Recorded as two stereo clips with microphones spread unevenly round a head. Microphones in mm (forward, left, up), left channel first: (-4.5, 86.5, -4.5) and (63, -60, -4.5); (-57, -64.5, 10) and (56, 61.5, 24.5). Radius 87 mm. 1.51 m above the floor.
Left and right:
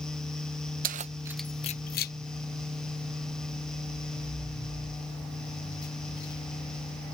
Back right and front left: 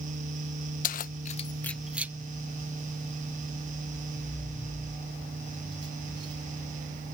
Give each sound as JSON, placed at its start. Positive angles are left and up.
{"t": 0.8, "sound": "keys jangling", "azimuth_deg": -90}